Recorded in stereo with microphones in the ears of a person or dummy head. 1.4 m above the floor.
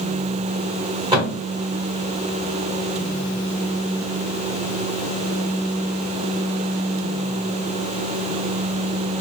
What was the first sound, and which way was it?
A thud, 25° right (ahead or behind).